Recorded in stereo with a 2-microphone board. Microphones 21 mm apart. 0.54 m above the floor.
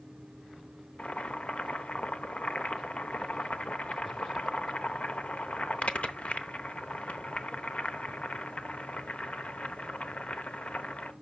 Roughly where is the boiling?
Left.